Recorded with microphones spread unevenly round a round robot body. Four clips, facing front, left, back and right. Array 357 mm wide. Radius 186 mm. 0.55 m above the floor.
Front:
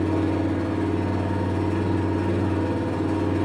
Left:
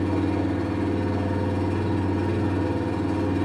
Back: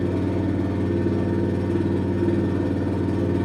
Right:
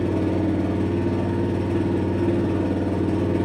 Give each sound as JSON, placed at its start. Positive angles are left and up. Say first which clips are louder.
{"t": 0.0, "sound": "an engine running", "louder": "right 2 dB, front 1 dB", "azimuth_deg": -140, "distance_m": 1.0}